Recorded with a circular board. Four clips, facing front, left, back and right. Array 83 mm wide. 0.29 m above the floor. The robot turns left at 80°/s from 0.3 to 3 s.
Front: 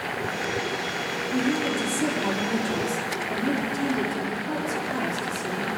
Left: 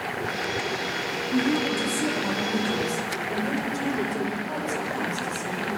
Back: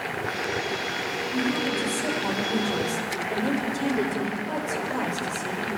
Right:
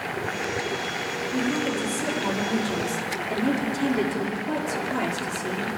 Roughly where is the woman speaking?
Left.